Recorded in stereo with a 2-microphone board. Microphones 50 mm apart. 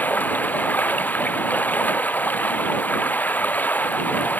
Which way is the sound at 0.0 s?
35° left (ahead or behind).